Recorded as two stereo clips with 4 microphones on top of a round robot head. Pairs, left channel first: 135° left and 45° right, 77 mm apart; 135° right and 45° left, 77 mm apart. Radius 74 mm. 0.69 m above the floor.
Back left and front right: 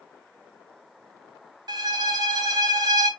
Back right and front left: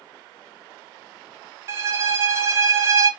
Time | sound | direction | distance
1.7 | a violin | 10° right | 1.0 m